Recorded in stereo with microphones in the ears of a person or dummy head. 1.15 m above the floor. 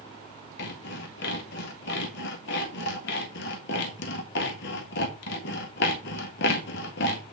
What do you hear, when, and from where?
0.6 s sawing: 60° left (ahead or behind), 1.6 m